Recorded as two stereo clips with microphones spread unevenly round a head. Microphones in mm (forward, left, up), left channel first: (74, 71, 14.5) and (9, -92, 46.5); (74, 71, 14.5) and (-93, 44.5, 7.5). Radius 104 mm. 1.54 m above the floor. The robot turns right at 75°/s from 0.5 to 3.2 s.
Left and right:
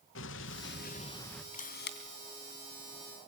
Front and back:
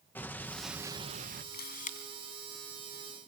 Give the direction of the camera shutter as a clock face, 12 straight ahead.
11 o'clock.